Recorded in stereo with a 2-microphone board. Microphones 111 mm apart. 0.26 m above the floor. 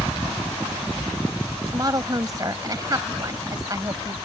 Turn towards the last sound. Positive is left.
turn(degrees=-35)  # may be behind; listen again after turning